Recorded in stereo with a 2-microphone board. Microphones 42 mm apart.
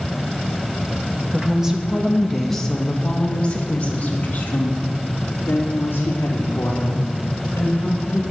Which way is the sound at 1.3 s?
20° right (ahead or behind).